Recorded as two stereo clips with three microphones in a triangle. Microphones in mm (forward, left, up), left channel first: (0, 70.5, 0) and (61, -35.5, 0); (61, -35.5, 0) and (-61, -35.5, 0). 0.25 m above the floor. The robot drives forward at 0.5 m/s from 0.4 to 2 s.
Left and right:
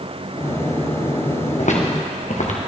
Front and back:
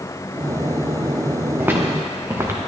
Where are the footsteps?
105° left, 2 m; by 2.6 s 110° left, 2 m.